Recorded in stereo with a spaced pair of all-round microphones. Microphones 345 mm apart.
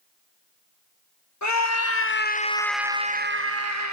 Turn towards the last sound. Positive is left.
turn(degrees=-55)  # may be behind; listen again after turning